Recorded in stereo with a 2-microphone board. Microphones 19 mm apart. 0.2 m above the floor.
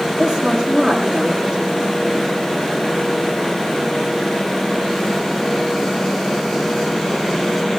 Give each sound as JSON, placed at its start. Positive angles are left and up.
{"t": 0.2, "sound": "a woman speaking", "side_deg": -25, "distance_m": 9.5}